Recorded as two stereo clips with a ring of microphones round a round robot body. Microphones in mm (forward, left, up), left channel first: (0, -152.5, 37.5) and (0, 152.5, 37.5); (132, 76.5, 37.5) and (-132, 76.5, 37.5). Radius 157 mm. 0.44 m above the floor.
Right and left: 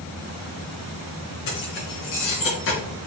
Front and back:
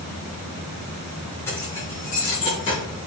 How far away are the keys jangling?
About 5 m.